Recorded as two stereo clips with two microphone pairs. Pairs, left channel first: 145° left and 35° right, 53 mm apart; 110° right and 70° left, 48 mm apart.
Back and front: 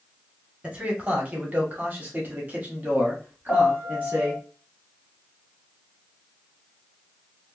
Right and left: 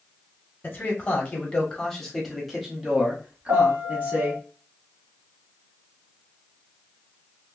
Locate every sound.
0.6 s a man speaking: 85° right, 1.4 m; by 4.4 s 20° left, 1.9 m
3.5 s a piano: 80° left, 1.8 m